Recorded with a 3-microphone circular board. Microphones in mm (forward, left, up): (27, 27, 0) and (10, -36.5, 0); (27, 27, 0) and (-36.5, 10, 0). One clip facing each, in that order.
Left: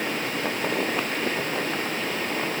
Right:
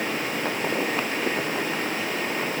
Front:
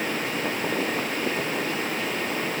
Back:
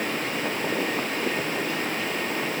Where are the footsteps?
I don't hear footsteps.